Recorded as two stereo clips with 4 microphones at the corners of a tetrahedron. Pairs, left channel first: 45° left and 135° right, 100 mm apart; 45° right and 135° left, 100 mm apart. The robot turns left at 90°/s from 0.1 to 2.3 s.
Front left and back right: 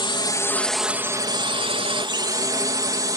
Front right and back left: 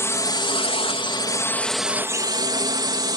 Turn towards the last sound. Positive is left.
turn(degrees=175)